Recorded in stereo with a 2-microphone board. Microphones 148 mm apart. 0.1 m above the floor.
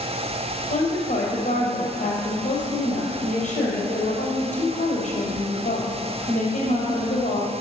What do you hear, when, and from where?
0.7 s a woman speaking: 60° left (ahead or behind), 3.5 m